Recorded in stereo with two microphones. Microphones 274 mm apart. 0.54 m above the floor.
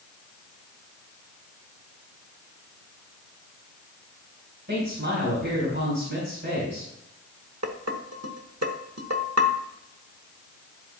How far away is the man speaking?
About 3.5 m.